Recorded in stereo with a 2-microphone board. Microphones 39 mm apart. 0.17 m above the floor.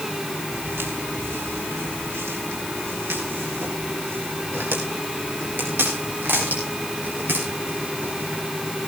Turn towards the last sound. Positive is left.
turn(degrees=-60)  # may be behind; listen again after turning